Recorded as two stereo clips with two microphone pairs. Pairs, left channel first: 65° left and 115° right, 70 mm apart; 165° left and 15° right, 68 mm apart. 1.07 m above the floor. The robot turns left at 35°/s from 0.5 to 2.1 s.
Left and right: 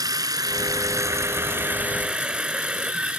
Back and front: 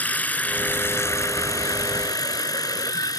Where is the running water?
130° right; by 3.2 s 170° left.